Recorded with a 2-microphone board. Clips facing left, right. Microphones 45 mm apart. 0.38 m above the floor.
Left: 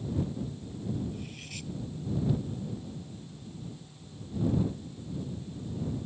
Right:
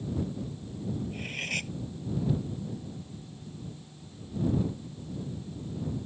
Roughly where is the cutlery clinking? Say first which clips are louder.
Right 8 dB; right.